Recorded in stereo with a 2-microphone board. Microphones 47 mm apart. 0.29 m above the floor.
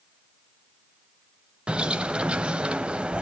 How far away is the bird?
About 0.9 m.